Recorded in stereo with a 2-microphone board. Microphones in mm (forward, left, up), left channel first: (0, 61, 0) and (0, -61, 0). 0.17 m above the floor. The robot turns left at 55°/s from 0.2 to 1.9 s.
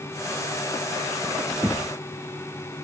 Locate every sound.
1.6 s knocking: 10° right (ahead or behind); by 1.9 s centre (ahead or behind)